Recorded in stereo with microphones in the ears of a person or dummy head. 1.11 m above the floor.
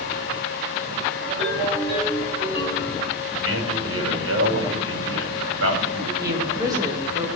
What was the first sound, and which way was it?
A ringtone, 35° right (ahead or behind).